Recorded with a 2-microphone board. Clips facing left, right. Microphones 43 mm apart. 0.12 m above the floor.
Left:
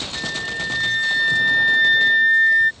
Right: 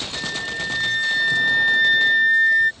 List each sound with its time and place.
0.1 s a flute: 5° left (ahead or behind)